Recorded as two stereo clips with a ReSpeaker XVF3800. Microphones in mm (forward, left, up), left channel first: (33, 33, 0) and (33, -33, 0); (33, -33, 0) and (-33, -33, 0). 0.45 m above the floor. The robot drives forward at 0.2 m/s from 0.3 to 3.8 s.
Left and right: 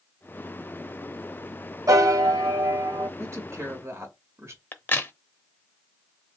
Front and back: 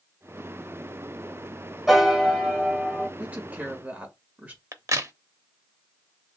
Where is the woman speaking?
115° right, 1.5 m; by 4.6 s 120° right, 1.6 m.